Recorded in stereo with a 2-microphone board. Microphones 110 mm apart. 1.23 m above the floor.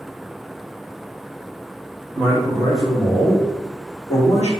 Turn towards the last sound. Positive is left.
turn(degrees=75)  # may be behind; listen again after turning